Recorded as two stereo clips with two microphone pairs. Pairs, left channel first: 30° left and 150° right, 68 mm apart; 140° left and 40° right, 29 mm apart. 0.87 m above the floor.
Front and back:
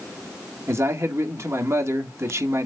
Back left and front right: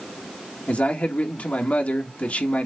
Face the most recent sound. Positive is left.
turn(degrees=165)